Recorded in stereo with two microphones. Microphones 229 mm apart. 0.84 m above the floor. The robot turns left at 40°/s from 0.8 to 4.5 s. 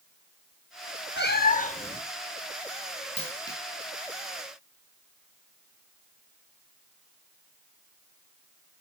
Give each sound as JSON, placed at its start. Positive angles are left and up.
{"t": 1.2, "sound": "a cat meowing", "azimuth_deg": 60, "distance_m": 0.8}
{"t": 3.2, "sound": "a dropped coin", "side_deg": 25, "distance_m": 3.5}